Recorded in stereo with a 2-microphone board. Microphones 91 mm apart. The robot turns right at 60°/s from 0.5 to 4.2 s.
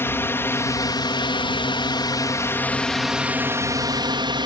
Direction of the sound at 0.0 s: 30° left.